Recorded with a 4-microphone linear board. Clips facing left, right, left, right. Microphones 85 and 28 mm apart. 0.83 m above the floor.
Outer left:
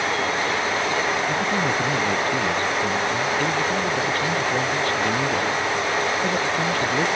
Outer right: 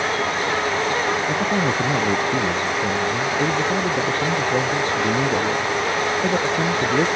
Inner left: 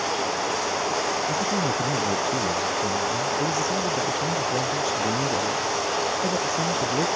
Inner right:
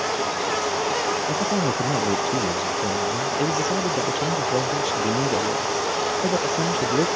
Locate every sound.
1.3 s a man speaking: 20° right (ahead or behind)